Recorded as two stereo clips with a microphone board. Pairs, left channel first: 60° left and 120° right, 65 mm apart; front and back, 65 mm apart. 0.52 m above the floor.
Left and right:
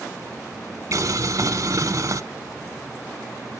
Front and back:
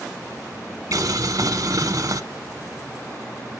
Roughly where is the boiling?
Behind right.